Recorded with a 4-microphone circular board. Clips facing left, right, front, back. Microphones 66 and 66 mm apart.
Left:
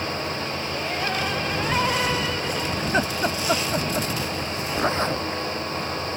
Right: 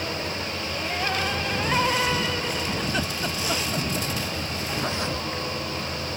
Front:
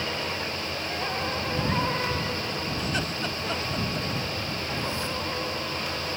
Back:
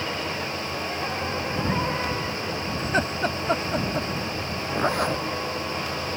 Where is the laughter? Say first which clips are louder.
Left 4 dB, back 9 dB; 135° left.